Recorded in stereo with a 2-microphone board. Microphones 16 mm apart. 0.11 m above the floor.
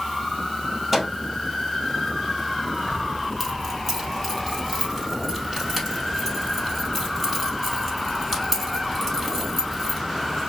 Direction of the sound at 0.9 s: Centre (ahead or behind).